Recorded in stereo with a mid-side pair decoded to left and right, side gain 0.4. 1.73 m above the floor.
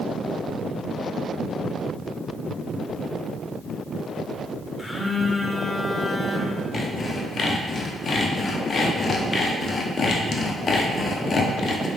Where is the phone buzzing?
20° left, 0.7 m.